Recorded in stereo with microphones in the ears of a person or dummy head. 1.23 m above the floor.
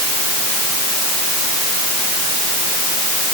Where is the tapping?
I don't hear tapping.